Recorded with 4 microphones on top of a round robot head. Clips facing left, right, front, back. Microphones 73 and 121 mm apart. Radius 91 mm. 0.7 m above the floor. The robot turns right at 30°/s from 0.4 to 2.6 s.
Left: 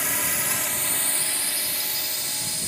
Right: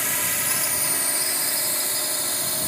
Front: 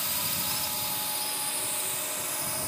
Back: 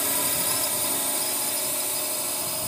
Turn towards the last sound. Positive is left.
turn(degrees=-115)